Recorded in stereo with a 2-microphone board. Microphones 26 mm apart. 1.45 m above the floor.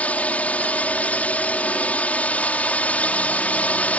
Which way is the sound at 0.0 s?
70° left (ahead or behind).